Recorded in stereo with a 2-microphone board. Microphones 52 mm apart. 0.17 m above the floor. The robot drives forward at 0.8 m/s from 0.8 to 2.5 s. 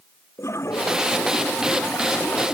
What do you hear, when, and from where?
0.4 s a toilet flushing: 65° left (ahead or behind); by 2.5 s 75° left (ahead or behind)